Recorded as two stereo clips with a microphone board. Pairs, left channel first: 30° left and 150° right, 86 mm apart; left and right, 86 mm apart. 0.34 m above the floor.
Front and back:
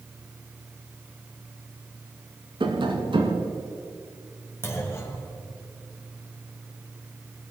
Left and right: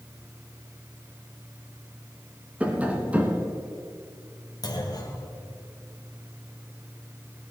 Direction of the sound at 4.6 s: 85° left.